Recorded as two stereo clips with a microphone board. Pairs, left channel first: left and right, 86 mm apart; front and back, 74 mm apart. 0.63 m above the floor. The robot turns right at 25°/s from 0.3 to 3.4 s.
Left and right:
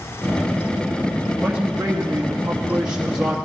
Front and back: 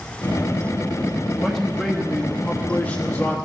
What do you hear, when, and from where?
1.4 s a man speaking: 70° right, 1.1 m; by 3.4 s 20° right, 1.1 m